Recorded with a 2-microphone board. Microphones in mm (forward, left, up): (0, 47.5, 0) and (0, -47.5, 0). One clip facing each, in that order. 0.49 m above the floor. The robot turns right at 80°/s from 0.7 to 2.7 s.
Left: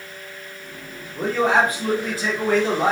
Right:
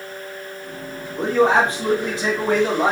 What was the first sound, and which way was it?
A man speaking, 15° right (ahead or behind).